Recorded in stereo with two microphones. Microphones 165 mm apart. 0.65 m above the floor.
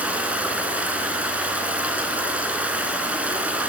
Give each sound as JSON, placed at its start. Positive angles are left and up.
{"t": 0.0, "sound": "running water", "side_deg": -10, "distance_m": 3.0}